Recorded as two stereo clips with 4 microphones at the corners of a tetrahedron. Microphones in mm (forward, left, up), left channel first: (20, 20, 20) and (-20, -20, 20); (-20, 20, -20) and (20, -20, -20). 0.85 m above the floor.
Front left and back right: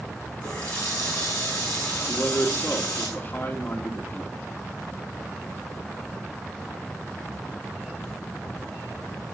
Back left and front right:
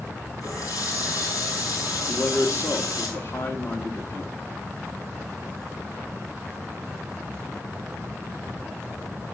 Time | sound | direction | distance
0.4 | a running tap | 110° left | 6.5 m
2.1 | a man speaking | 100° left | 1.7 m